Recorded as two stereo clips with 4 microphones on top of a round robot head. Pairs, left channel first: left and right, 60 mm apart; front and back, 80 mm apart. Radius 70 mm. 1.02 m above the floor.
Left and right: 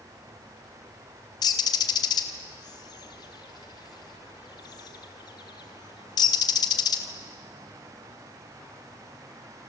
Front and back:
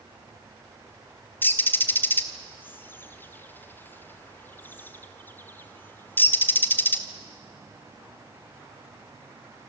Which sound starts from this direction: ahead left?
A bird, at 1.4 s.